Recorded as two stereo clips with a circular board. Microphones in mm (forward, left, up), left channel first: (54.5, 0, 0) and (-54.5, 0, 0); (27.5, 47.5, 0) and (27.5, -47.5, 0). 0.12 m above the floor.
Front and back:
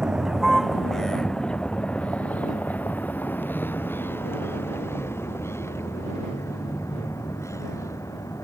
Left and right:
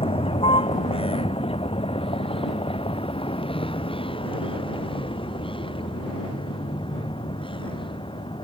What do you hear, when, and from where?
0.0 s a vehicle: 95° left; by 8.4 s 60° left